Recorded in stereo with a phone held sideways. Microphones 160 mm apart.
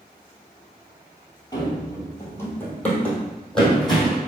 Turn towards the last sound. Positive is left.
turn(degrees=0)  # may be behind; listen again after turning